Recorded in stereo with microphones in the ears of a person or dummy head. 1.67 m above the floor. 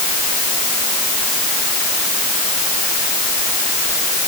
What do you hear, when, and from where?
Only background noise.